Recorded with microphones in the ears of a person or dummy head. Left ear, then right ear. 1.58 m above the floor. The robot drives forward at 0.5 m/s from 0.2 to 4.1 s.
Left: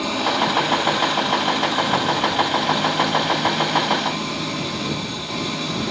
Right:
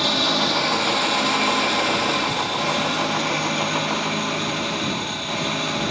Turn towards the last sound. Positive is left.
turn(degrees=-30)  # may be behind; listen again after turning